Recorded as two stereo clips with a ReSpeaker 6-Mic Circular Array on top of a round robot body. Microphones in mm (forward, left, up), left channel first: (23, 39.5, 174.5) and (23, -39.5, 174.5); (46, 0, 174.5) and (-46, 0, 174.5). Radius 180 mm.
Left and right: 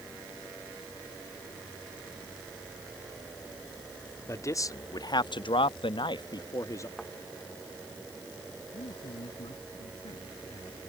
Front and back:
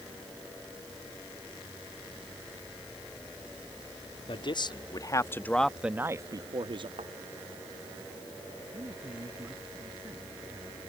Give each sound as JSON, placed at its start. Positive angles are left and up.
{"t": 4.3, "sound": "a man speaking", "azimuth_deg": 35}
{"t": 7.0, "sound": "a thud", "azimuth_deg": 180}
{"t": 8.7, "sound": "a man speaking", "azimuth_deg": 110}